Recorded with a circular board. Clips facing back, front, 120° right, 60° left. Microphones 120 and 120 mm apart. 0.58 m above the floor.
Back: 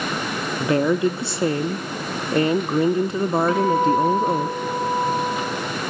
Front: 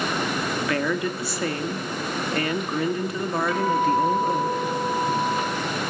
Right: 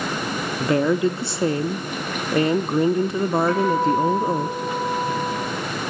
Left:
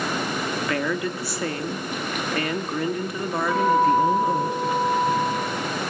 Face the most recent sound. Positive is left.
turn(degrees=135)